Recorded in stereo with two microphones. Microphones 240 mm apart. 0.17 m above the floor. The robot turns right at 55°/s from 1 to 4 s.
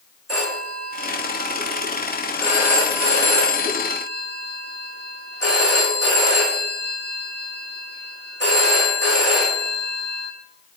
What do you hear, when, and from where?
0.3 s a phone ringing: 75° right, 7.5 m; by 10.3 s 90° left, 7.5 m